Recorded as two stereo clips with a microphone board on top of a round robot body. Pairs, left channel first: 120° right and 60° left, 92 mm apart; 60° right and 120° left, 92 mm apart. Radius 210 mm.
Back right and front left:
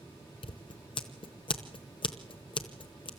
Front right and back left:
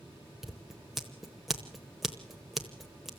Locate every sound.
0.4 s scissors: 155° right, 0.9 m